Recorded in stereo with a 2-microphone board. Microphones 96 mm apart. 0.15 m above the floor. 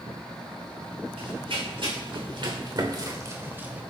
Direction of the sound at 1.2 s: 70° right (ahead or behind).